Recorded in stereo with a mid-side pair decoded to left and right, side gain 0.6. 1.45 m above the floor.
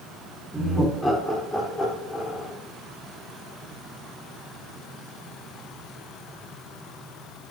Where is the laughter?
Straight ahead, 5 m; by 2.5 s 15° left, 5 m.